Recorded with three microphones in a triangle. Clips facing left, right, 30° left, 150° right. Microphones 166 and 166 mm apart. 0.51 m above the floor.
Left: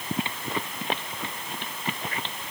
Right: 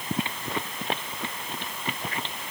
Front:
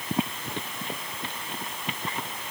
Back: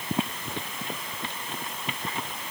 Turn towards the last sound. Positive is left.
No sound to turn to.